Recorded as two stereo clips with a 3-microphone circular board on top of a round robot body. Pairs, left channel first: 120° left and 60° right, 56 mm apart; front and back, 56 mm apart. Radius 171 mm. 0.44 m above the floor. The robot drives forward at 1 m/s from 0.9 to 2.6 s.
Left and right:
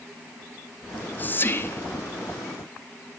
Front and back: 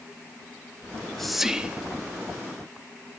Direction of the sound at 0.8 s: 65° left.